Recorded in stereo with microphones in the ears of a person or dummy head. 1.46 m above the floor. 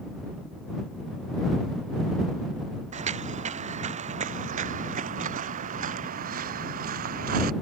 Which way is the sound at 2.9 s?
40° right (ahead or behind).